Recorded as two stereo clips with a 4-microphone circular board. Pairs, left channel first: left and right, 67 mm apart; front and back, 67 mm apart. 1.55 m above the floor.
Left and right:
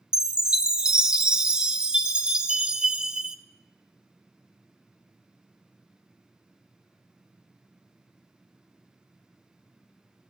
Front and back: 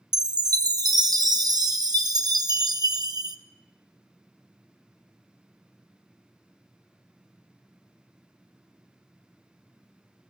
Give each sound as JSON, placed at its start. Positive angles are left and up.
{"t": 0.1, "sound": "a chime", "azimuth_deg": -165, "distance_m": 0.6}